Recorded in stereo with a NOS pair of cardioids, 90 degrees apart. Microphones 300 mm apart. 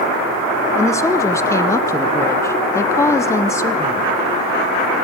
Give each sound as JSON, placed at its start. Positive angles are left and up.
{"t": 0.8, "sound": "a woman speaking", "azimuth_deg": 10, "distance_m": 0.7}